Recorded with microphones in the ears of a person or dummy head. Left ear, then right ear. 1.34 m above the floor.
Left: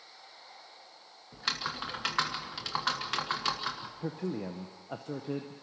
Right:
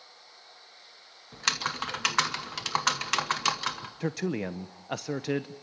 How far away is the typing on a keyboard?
About 1.2 m.